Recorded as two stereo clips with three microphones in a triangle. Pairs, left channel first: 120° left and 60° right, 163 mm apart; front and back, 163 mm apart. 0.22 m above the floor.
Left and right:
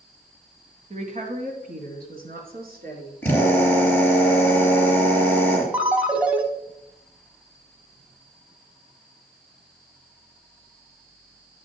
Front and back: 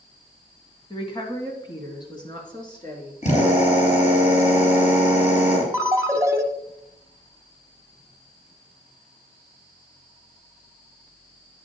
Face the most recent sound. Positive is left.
turn(degrees=-130)